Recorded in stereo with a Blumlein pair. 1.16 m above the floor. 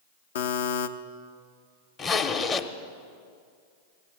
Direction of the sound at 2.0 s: 25° left.